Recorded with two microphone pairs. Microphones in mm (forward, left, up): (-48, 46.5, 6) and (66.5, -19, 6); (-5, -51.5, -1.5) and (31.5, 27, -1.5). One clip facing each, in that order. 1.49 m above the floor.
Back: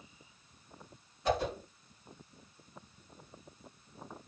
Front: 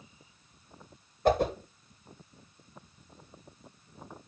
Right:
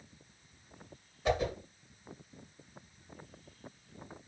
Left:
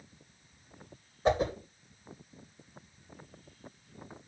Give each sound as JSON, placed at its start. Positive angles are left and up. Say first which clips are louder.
{"t": 1.2, "sound": "a whoosh", "louder": "front 6 dB, left 4 dB", "azimuth_deg": 10, "distance_m": 2.0}